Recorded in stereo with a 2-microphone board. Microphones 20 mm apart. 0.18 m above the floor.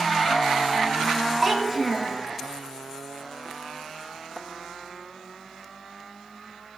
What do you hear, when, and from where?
1.4 s a child speaking: 10° right (ahead or behind), 0.9 m